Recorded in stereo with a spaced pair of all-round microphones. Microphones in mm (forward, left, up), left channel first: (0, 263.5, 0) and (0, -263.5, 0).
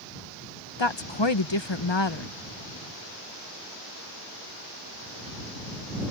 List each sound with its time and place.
0.8 s a woman speaking: 55° left (ahead or behind)